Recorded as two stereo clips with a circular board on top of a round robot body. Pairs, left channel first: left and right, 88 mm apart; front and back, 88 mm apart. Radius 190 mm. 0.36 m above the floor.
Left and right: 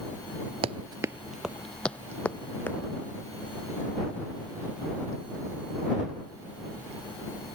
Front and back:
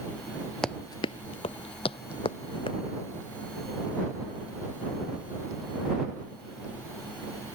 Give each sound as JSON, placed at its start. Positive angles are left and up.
{"t": 0.6, "sound": "running footsteps", "azimuth_deg": -85}